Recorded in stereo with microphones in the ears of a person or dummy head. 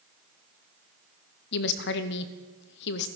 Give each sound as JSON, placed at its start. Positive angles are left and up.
{"t": 1.5, "sound": "a woman speaking", "side_deg": 60, "distance_m": 0.9}